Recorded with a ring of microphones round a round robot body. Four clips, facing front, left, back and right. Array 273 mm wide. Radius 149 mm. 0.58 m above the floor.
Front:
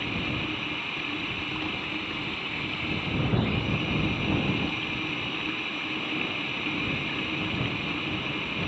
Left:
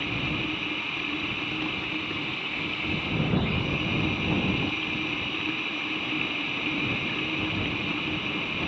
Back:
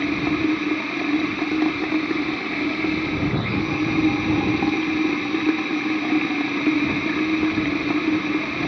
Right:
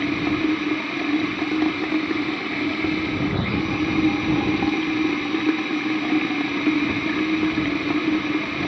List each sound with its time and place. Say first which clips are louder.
0.0 s running water: right 10 dB, back 11 dB; 135° right